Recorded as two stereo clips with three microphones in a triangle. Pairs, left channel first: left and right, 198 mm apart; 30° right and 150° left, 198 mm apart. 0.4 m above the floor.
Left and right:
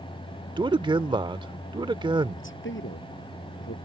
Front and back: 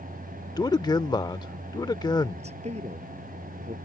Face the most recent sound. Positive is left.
turn(degrees=95)